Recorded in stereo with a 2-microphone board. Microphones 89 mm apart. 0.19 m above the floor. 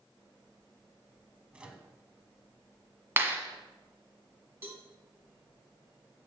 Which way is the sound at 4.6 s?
25° right (ahead or behind).